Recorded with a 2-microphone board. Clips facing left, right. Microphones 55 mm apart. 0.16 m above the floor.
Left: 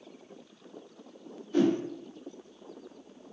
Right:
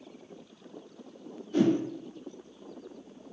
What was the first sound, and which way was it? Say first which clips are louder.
A whoosh: right 1 dB; 5° left (ahead or behind).